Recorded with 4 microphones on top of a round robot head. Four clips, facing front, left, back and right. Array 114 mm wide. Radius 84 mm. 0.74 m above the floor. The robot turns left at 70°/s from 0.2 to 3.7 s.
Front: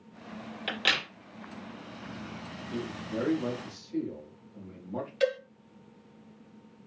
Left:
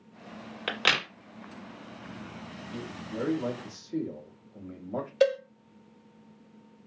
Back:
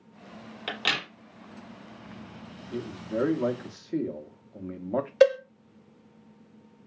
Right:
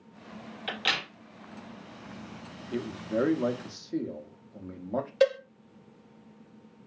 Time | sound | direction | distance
0.7 | a crack | 110° left | 1.5 m
2.7 | a man speaking | 90° right | 0.9 m
5.2 | a cowbell | 175° right | 1.0 m